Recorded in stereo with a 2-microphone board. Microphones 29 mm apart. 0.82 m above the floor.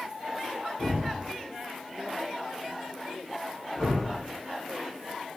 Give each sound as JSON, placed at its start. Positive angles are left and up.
{"t": 0.8, "sound": "a thud", "side_deg": 70, "distance_m": 1.8}